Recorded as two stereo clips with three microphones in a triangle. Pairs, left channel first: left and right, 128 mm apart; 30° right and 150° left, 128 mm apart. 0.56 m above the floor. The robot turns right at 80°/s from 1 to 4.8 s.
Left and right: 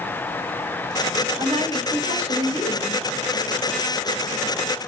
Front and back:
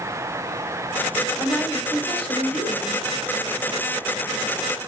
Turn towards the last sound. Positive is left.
turn(degrees=140)